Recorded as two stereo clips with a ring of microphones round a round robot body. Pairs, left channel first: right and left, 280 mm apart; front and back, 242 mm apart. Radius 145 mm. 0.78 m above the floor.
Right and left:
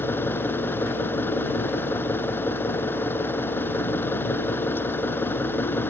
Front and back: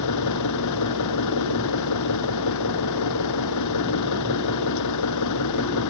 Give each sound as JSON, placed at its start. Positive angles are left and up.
{"t": 0.0, "sound": "an engine running", "azimuth_deg": -5}